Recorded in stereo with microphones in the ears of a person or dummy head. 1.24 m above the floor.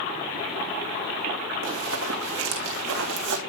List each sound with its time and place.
1.6 s running footsteps: 70° right (ahead or behind), 4 m